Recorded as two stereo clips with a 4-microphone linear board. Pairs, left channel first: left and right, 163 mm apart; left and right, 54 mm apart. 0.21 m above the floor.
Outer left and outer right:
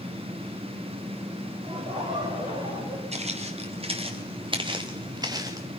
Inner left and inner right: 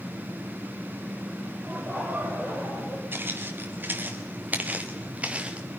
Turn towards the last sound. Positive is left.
turn(degrees=-20)  # may be behind; listen again after turning